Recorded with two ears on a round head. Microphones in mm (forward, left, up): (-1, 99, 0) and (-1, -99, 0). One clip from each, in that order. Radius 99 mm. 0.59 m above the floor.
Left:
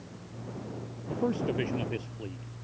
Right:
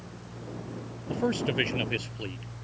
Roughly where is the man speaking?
Right.